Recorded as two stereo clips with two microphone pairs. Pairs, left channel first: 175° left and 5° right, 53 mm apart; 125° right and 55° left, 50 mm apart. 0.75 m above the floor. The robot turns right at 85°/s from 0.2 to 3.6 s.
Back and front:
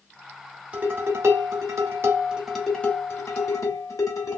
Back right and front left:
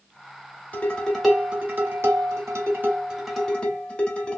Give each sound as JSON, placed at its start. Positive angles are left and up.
{"t": 0.7, "sound": "dishes clattering", "azimuth_deg": -75, "distance_m": 1.2}